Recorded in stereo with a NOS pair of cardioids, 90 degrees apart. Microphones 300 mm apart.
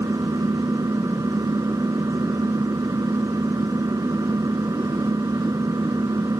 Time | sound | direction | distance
0.0 | an engine running | 10° right | ?